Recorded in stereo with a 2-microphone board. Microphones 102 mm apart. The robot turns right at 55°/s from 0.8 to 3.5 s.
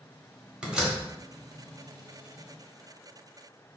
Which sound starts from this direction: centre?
A door slam, at 0.6 s.